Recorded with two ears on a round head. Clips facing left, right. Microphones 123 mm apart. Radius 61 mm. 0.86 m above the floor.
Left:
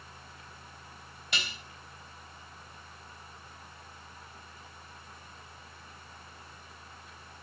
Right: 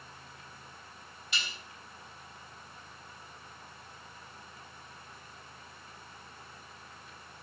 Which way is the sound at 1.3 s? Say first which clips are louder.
Left 2 dB; 50° left (ahead or behind).